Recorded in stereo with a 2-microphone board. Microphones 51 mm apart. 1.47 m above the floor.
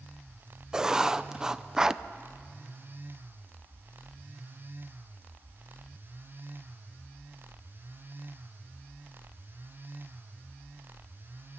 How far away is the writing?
About 0.5 m.